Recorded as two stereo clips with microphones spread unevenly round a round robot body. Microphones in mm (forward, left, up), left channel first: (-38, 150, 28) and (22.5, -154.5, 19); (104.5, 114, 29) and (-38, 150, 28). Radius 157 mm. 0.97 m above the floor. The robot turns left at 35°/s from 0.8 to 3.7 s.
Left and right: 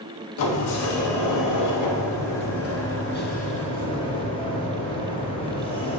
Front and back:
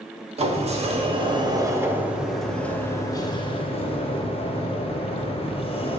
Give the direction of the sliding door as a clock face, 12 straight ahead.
8 o'clock.